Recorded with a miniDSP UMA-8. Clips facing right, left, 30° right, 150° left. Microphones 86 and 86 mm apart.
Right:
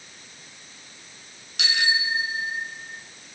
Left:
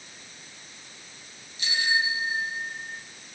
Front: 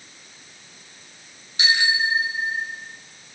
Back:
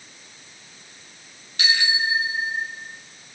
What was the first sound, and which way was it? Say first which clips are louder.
A bicycle bell: right 1 dB, front 2 dB; 100° right.